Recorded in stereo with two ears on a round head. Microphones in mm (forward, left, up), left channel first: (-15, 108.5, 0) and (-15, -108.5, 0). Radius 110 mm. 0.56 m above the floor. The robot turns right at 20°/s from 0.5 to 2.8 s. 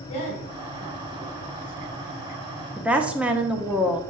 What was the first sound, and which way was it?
A woman speaking, 35° left (ahead or behind).